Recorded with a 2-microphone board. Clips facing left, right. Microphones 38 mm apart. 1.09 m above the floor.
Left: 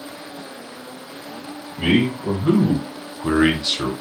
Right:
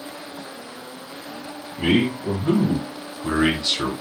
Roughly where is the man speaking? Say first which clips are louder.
Left 1 dB; left.